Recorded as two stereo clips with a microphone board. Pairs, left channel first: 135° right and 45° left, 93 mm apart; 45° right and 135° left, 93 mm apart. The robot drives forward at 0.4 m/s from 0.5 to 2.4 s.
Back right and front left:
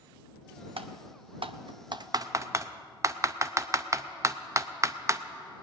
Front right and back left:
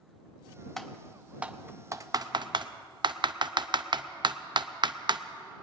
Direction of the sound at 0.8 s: 40° left.